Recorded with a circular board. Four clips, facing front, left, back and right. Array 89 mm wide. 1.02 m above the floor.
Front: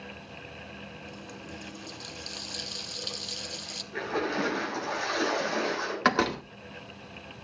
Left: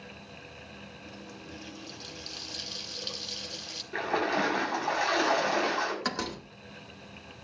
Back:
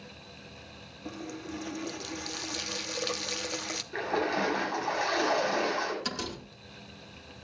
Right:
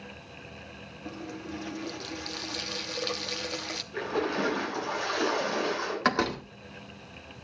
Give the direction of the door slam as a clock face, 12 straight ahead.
1 o'clock.